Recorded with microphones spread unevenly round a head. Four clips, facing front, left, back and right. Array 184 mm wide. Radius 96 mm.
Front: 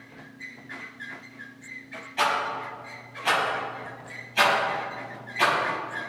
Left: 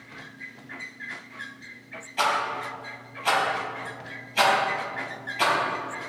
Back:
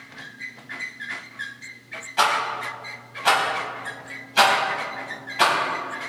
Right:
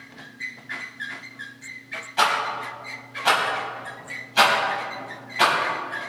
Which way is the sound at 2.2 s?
140° right.